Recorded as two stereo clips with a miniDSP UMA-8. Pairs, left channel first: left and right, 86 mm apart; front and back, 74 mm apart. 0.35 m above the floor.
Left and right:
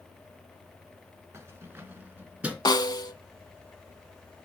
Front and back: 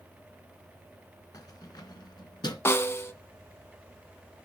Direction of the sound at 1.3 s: 35° right.